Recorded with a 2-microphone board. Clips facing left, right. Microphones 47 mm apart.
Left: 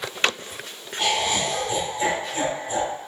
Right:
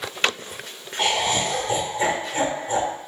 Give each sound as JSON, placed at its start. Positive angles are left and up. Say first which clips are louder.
{"t": 1.0, "sound": "laughter", "louder": "right 1 dB", "side_deg": -25, "distance_m": 1.1}